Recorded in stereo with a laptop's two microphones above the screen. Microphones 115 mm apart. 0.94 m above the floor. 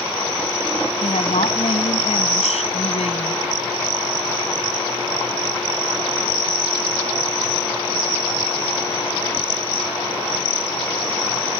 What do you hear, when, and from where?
1.0 s a woman speaking: 80° left